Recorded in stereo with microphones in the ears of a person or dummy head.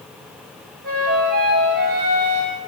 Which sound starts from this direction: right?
A flute, at 0.8 s.